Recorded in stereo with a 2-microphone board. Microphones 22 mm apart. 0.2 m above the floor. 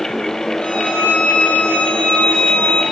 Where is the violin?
60° left (ahead or behind), 6.5 m.